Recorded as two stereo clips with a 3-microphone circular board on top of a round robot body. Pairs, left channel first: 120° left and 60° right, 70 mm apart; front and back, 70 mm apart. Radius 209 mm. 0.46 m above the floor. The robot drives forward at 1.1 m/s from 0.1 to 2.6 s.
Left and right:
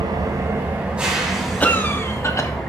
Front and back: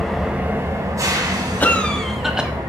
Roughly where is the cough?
Ahead left.